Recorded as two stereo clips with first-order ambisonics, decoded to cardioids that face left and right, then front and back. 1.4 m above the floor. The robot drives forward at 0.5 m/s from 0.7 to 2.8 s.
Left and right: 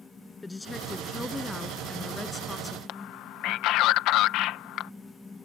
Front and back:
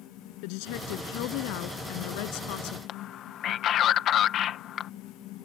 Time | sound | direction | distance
0.4 | a woman speaking | 10° left | ?
2.9 | a man speaking | 55° left | ?